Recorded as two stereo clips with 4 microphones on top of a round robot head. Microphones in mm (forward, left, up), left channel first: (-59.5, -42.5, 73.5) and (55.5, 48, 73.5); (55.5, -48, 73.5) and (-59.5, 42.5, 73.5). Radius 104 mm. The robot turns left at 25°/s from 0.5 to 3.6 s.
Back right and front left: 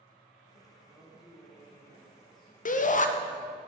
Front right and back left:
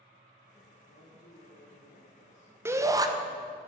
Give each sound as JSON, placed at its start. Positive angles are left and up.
{"t": 0.8, "sound": "a woman speaking", "azimuth_deg": -40, "distance_m": 3.0}
{"t": 2.6, "sound": "a shout", "azimuth_deg": -150, "distance_m": 1.2}